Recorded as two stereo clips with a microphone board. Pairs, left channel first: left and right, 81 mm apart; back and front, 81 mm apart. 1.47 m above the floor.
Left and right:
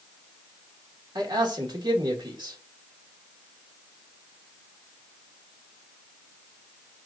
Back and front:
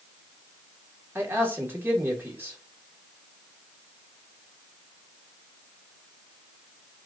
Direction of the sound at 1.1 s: 65° right.